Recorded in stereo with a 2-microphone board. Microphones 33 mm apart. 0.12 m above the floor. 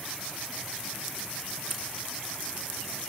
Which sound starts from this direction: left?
Scissors, at 1.7 s.